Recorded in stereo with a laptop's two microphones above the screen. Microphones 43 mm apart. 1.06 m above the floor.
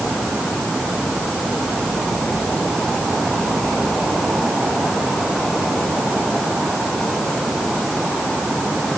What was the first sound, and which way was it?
Only background noise.